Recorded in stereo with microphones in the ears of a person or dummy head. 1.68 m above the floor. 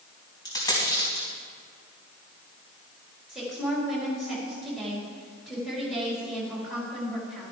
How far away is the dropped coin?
About 4 m.